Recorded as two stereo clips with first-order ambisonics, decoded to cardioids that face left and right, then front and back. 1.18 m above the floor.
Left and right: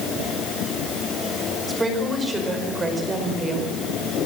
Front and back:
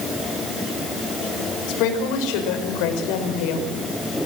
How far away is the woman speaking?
About 5.5 m.